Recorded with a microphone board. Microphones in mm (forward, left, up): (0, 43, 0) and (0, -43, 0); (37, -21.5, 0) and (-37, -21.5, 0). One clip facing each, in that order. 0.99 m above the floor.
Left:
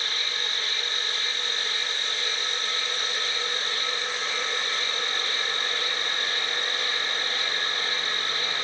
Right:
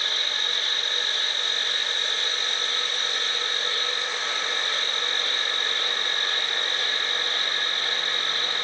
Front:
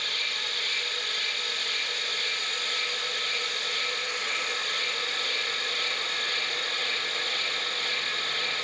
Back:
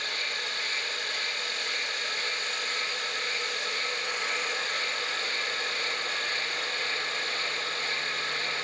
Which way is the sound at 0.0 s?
125° right.